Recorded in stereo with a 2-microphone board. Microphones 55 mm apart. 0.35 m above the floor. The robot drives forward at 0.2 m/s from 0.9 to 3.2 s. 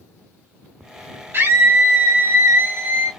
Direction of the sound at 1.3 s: 50° right (ahead or behind).